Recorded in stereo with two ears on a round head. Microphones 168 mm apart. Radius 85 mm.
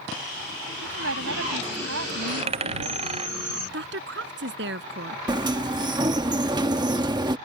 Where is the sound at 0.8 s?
80° right.